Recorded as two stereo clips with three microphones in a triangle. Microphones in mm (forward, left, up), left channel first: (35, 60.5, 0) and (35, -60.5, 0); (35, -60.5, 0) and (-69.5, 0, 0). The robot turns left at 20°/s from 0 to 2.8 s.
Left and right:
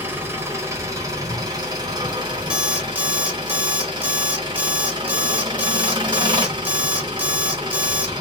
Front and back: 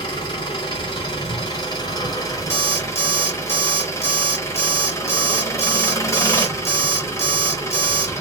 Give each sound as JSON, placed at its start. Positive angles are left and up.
{"t": 0.0, "sound": "an engine running", "azimuth_deg": -25, "distance_m": 1.1}
{"t": 2.5, "sound": "an alarm clock", "azimuth_deg": -10, "distance_m": 0.9}